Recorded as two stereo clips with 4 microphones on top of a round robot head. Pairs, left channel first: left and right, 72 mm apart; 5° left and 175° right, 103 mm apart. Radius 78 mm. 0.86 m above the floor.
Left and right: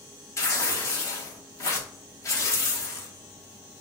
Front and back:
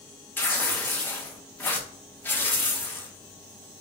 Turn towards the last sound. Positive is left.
turn(degrees=65)